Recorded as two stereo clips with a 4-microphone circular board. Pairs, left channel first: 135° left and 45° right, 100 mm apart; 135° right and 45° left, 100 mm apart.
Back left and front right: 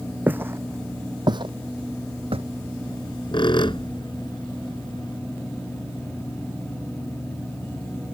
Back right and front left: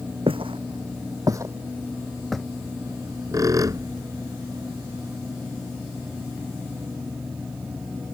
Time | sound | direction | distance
0.3 | footsteps | 25° left | ?
2.9 | a squeak | 100° left | ?